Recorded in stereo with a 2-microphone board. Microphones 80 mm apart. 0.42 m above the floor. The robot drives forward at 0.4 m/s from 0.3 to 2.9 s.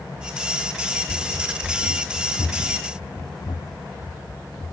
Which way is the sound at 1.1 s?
60° left (ahead or behind).